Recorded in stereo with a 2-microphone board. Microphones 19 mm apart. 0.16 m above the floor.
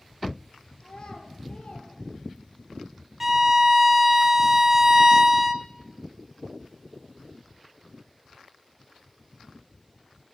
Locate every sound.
0.8 s a child speaking: 50° left (ahead or behind), 3 m; by 2.7 s 70° left (ahead or behind), 3 m
3.2 s a violin: 15° right (ahead or behind), 0.7 m